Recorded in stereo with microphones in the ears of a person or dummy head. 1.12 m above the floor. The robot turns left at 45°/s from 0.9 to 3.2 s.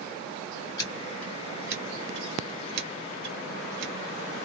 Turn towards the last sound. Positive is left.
turn(degrees=-70)  # may be behind; listen again after turning